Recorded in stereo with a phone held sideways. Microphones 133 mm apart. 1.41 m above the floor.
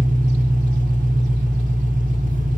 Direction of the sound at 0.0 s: 75° right (ahead or behind).